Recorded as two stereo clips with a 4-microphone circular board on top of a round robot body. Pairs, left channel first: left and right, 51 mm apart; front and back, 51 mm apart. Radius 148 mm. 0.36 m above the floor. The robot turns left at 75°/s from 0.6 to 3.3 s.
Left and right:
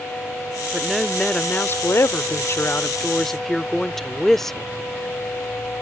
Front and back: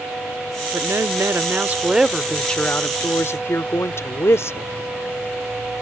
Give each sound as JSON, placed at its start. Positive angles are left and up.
{"t": 0.7, "sound": "a woman speaking", "azimuth_deg": -160}